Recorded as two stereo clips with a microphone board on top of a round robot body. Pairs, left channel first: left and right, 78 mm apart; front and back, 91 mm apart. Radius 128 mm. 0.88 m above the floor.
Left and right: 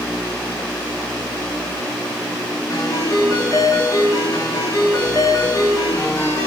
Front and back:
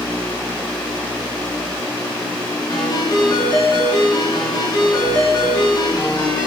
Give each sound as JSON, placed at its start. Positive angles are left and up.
{"t": 2.7, "sound": "a ringtone", "azimuth_deg": 45, "distance_m": 8.0}